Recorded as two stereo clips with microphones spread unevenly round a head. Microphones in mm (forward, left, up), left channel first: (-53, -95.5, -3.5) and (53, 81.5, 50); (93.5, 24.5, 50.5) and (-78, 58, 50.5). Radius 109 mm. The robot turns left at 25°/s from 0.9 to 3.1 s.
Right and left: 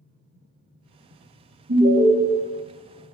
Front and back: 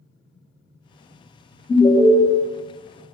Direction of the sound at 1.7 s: 70° left.